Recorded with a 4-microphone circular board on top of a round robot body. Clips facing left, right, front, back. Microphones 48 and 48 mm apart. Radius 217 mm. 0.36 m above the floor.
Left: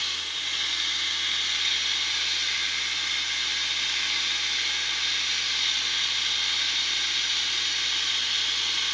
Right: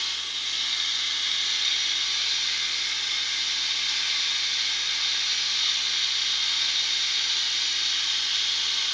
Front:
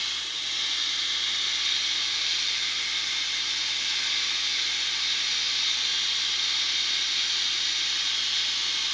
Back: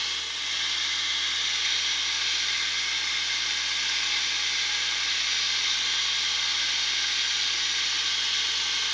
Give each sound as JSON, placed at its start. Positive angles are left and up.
{"t": 0.0, "sound": "running water", "azimuth_deg": 150, "distance_m": 2.5}